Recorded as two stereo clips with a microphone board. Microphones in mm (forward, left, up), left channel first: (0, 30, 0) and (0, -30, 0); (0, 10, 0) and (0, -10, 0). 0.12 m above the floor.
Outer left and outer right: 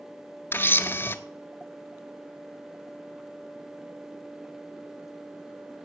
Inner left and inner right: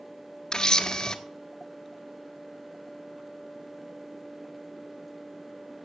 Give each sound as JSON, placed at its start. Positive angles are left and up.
{"t": 0.5, "sound": "a camera shutter", "side_deg": 35, "distance_m": 0.7}